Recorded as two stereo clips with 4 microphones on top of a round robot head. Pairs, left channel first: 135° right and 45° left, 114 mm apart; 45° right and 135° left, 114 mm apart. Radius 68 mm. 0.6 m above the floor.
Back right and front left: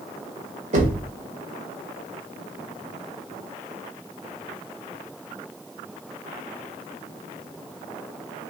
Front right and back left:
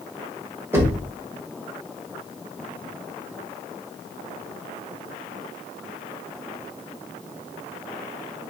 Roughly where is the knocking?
Ahead left.